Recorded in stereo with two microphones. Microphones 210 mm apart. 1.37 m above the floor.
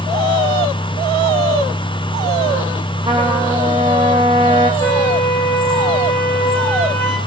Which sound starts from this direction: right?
A trumpet, at 3.1 s.